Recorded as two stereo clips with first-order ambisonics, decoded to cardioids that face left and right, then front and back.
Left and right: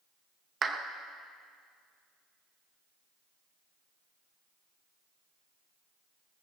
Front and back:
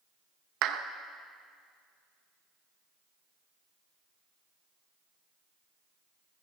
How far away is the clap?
About 0.7 m.